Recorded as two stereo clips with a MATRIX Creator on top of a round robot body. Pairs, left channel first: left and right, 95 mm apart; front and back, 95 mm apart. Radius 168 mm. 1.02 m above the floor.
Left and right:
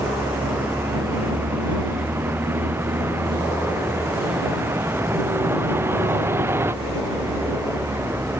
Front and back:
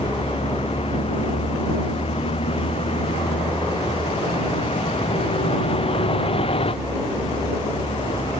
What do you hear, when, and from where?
0.0 s a vehicle: 20° right; by 8.4 s 25° right